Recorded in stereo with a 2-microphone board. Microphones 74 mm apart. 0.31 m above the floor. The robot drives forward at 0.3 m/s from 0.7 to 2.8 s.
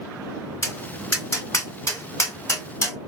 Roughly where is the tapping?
Left.